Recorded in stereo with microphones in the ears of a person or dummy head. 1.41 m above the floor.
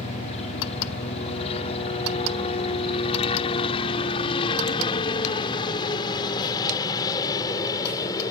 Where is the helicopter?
35° left (ahead or behind); by 8.3 s 20° left (ahead or behind).